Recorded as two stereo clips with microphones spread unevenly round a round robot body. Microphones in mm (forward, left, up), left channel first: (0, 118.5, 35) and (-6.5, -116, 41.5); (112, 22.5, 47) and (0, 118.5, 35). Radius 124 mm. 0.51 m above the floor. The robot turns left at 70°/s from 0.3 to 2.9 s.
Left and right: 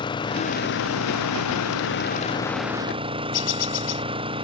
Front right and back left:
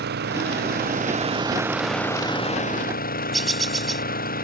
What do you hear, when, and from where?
0.0 s an engine running: 160° left; by 4.5 s 20° right
3.3 s a bird: 50° left